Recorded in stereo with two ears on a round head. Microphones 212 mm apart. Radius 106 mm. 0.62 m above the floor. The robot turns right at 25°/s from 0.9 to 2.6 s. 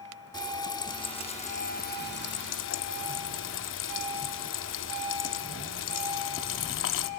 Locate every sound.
0.3 s frying: 20° left, 0.7 m; by 7.1 s 60° left, 0.7 m